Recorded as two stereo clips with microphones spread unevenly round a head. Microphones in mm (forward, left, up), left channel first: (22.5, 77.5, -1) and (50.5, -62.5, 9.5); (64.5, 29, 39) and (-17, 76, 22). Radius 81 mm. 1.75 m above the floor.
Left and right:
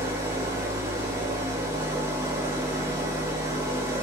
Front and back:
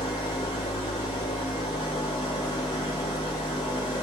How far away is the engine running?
About 0.9 m.